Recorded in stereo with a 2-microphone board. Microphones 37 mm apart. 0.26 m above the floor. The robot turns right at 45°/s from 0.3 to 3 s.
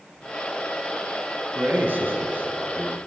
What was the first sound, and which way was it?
A man speaking, 110° right.